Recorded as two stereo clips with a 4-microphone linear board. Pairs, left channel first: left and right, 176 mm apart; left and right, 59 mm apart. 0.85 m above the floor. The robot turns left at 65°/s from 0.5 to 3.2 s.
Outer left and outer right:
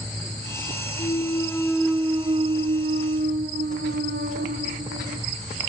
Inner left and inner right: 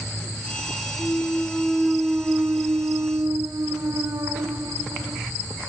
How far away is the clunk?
About 1.1 m.